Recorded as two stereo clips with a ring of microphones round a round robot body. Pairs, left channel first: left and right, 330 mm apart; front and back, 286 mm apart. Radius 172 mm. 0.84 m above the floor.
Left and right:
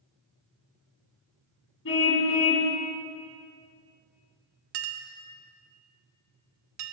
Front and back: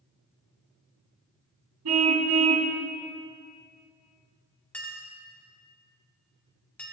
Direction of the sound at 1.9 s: 145° left.